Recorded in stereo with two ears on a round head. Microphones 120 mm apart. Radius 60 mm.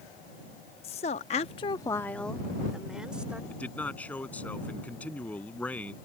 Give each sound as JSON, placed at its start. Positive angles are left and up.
{"t": 0.8, "sound": "a woman speaking", "side_deg": 45}
{"t": 3.5, "sound": "a man speaking", "side_deg": 10}